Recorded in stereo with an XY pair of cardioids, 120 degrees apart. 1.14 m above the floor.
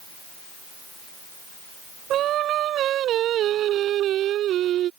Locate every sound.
2.1 s singing: 65° right